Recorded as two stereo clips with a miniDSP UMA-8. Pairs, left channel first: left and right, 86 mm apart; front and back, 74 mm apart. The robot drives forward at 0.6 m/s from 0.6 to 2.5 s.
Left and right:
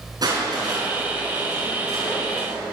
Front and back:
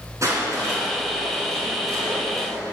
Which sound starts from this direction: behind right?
Crushing, at 0.2 s.